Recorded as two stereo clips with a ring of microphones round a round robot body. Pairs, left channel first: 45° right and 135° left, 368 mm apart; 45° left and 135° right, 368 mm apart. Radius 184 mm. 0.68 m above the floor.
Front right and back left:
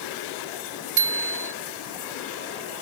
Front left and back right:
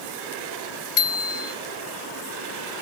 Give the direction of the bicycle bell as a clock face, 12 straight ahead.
9 o'clock.